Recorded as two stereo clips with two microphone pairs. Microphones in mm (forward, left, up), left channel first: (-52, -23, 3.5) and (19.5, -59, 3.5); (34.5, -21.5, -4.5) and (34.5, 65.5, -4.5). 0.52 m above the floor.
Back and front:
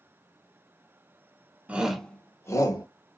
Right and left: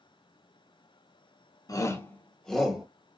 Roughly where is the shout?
Right.